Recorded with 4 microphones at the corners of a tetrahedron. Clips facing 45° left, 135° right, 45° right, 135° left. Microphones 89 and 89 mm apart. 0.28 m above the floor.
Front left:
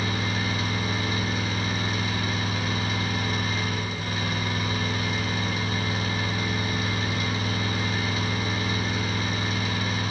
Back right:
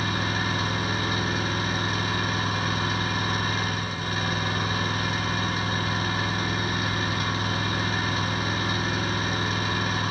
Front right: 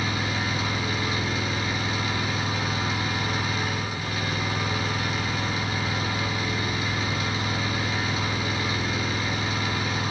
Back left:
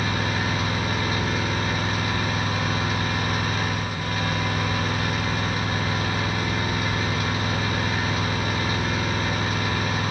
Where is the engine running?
Straight behind, 4.5 m.